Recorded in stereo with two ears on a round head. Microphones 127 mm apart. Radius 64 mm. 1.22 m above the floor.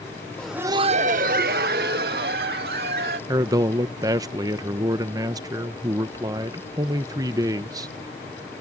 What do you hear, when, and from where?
0.4 s laughter: 10° left (ahead or behind); by 3.2 s 80° right
3.3 s a man speaking: 25° right (ahead or behind)